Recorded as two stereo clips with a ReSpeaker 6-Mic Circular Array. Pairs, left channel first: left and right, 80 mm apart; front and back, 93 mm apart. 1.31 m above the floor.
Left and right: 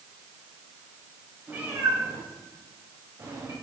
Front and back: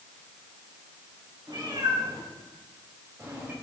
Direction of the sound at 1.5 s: 150° right.